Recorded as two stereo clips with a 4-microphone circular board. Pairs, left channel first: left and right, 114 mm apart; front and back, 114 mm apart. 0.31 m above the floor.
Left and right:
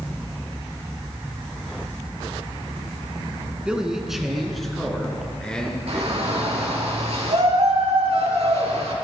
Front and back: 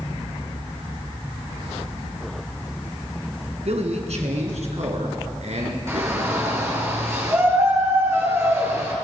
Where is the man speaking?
170° right, 3.5 m; by 6.5 s 165° left, 5 m.